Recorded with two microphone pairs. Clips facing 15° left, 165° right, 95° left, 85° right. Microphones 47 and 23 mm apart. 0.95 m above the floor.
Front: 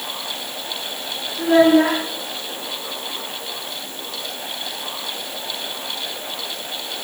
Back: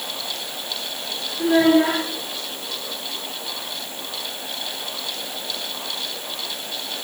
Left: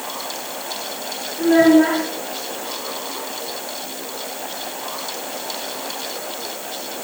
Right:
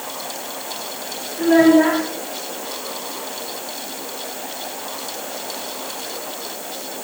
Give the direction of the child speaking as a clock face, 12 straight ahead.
1 o'clock.